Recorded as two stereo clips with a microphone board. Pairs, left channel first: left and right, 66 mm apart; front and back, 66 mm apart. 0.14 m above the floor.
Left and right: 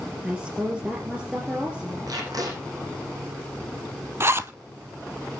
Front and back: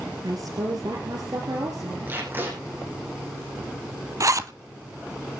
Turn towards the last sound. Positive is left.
turn(degrees=-140)